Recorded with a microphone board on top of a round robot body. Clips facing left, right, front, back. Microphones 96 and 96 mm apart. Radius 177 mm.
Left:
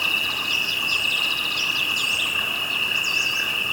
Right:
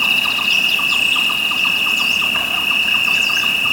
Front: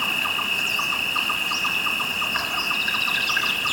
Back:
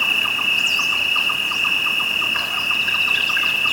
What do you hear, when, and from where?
0.0 s an insect: 80° right, 3 m